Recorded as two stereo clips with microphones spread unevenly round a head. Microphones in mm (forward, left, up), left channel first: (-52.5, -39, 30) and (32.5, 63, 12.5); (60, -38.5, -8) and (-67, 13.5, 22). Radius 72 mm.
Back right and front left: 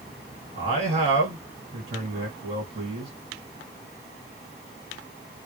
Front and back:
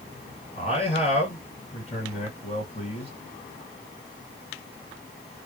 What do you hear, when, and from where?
0.6 s a man speaking: 10° left, 1.6 m